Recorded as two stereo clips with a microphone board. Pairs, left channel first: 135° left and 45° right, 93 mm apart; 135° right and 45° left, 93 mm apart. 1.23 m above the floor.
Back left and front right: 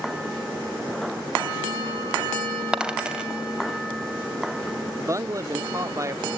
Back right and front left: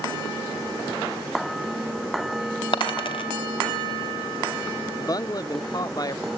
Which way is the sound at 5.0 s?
95° right.